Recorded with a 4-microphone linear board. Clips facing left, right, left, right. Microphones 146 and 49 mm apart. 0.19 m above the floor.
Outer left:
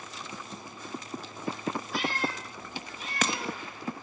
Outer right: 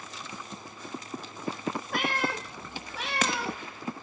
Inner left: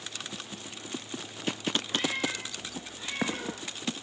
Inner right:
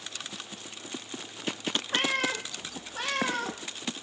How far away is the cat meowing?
About 1.7 m.